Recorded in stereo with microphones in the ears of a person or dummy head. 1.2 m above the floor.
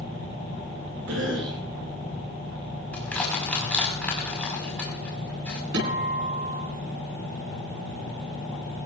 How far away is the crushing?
About 5 m.